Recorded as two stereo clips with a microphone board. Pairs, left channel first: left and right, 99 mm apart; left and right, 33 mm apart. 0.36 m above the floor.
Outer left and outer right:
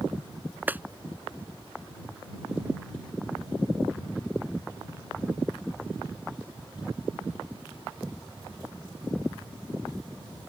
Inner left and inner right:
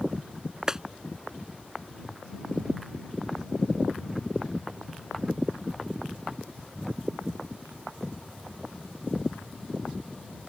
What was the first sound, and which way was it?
A clap, 15° right (ahead or behind).